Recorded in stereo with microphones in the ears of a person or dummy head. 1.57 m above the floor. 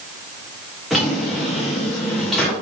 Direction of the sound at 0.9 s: Centre (ahead or behind).